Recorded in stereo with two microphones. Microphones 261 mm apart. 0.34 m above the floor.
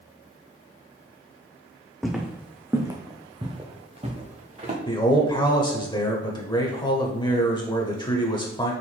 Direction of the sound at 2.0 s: Centre (ahead or behind).